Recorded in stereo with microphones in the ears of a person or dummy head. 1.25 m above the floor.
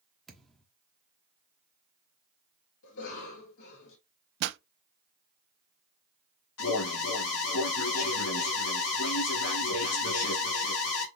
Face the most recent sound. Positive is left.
turn(degrees=90)